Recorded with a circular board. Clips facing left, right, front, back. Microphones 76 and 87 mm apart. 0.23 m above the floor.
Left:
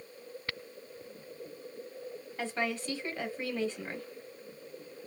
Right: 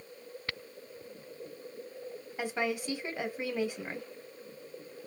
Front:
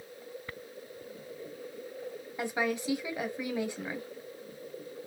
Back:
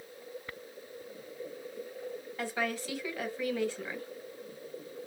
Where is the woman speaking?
40° right, 1.0 m.